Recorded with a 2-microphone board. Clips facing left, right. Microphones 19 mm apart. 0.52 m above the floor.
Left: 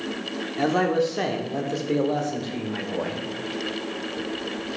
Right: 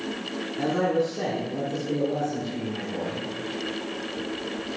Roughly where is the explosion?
No explosion in this recording.